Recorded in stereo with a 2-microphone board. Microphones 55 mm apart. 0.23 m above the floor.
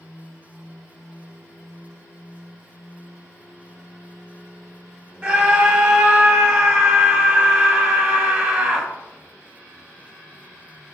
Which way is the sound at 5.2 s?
20° right (ahead or behind).